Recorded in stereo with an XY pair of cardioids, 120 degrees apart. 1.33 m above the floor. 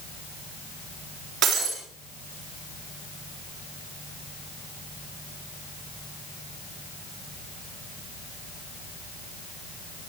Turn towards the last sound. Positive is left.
turn(degrees=-65)